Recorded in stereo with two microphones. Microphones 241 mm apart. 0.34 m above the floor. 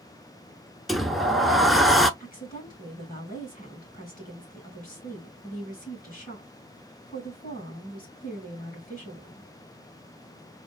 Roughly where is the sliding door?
Centre.